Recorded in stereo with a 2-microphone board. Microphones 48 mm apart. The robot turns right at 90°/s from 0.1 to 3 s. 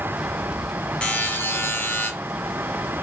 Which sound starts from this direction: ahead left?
A buzzer, at 1.0 s.